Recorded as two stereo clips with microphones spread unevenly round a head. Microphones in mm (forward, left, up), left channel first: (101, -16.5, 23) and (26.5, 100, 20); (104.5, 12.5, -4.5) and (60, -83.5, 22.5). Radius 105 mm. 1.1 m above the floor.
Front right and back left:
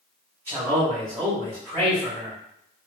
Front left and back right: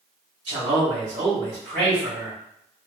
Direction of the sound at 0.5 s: 165° right.